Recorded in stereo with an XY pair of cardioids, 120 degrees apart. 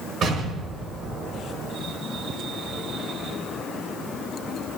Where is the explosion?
55° right, 4.5 m.